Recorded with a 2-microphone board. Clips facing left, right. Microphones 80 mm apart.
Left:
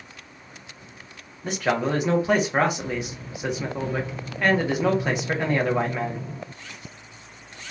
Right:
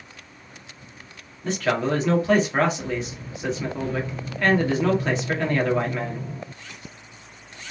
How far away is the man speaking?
About 1.3 m.